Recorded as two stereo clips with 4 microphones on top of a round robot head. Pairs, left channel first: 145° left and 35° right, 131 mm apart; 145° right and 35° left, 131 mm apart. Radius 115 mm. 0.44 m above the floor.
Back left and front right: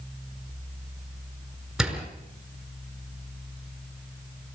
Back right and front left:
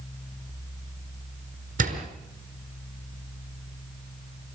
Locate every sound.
1.8 s a door slam: 55° left, 5 m